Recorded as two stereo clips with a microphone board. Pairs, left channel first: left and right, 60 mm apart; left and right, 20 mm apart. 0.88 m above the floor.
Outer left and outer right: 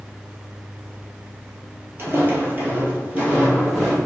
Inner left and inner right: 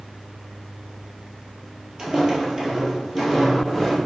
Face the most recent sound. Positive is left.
turn(degrees=-10)  # may be behind; listen again after turning